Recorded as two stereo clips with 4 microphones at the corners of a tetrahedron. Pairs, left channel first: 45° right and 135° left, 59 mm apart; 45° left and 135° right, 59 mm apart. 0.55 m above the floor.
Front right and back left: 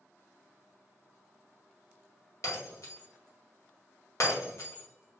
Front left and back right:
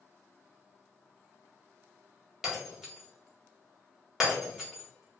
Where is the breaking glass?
50° right, 1.1 m.